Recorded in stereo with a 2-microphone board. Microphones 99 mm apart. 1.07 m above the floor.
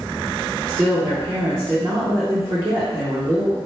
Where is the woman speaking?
35° right (ahead or behind), 0.7 m.